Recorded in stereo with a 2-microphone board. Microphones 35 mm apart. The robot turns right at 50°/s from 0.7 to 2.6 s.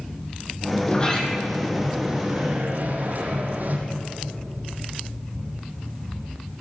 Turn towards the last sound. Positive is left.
turn(degrees=-130)